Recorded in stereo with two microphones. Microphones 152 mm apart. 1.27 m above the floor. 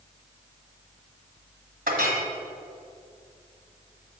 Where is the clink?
75° right (ahead or behind), 1.5 m.